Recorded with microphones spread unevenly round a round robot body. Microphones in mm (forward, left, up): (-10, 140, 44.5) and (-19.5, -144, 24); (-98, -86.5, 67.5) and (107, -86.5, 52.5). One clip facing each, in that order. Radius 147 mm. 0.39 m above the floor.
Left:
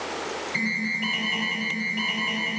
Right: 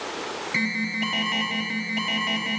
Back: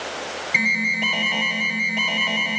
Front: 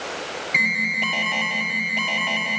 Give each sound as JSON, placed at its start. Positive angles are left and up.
{"t": 0.5, "sound": "an alarm", "azimuth_deg": -90, "distance_m": 1.6}